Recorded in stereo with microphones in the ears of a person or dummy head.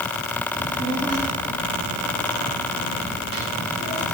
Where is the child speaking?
35° right (ahead or behind), 5 m; by 4.2 s 80° right, 7 m.